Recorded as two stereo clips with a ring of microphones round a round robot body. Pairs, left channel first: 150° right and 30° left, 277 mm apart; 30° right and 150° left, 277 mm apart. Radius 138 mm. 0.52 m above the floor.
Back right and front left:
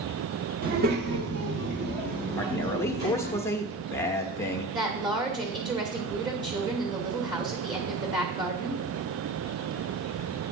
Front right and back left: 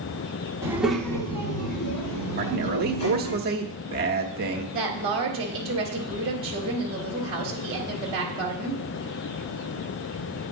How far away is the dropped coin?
No dropped coin in this recording.